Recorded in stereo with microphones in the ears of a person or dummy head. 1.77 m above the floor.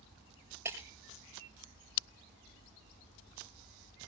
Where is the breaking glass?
15° right (ahead or behind), 5.5 m.